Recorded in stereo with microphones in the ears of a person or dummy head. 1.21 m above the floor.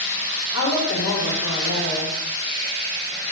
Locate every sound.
0.5 s a woman speaking: 70° left (ahead or behind), 2.5 m